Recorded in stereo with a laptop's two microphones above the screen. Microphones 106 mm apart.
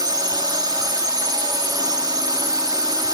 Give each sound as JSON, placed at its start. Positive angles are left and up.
{"t": 0.0, "sound": "a drone", "side_deg": -40}